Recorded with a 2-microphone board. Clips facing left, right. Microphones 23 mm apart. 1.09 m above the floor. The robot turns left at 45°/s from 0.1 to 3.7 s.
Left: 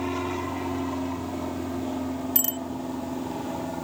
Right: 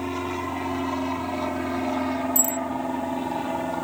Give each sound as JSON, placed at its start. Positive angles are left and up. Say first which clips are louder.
{"t": 0.0, "sound": "an aircraft", "louder": "even", "side_deg": -5}
{"t": 2.4, "sound": "a bicycle bell", "louder": "right 5 dB", "side_deg": 60}